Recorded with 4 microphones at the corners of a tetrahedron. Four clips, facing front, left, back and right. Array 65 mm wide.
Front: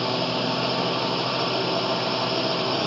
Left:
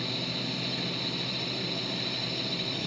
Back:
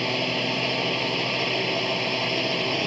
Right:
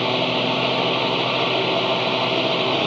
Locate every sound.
0.0 s a drone: 85° right